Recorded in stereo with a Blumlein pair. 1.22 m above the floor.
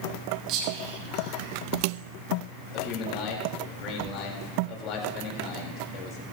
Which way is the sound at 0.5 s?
40° right.